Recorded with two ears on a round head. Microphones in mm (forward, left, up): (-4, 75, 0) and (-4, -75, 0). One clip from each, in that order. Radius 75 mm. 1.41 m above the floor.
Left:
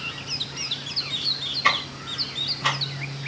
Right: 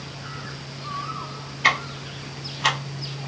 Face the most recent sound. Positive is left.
turn(degrees=-30)  # may be behind; listen again after turning